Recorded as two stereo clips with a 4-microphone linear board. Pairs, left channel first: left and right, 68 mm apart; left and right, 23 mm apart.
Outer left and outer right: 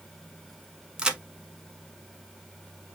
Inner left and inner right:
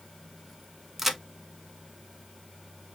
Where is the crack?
10° right (ahead or behind), 0.7 m.